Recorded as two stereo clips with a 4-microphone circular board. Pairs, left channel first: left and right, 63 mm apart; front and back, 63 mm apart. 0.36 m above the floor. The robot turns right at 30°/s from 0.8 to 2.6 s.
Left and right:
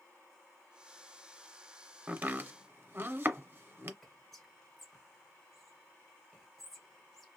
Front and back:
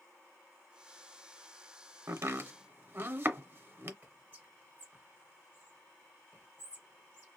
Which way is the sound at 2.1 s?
150° right.